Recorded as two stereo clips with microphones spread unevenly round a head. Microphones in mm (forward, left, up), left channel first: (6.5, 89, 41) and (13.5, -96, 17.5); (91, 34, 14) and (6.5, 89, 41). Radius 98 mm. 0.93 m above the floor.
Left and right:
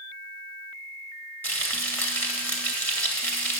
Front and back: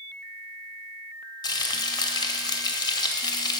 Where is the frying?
15° left, 1.3 m.